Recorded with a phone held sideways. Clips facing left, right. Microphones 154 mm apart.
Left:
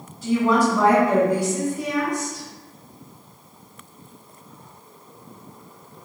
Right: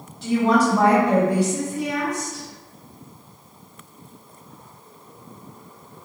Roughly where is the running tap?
I don't hear a running tap.